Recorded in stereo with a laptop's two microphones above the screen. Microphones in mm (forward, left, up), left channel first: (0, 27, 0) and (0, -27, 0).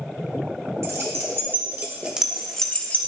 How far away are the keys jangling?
About 1.4 m.